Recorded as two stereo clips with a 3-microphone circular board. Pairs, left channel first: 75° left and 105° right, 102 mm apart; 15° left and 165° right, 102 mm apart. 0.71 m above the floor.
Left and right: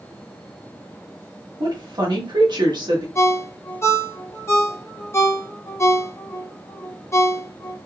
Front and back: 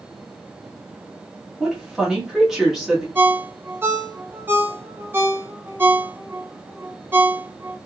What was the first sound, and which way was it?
A woman speaking, 80° right.